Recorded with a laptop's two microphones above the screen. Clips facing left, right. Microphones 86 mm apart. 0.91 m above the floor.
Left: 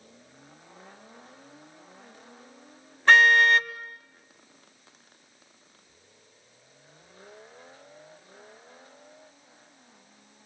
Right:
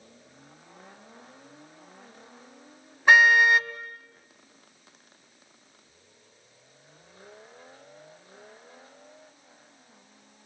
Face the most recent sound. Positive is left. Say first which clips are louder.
# even
turn(degrees=-10)  # may be behind; listen again after turning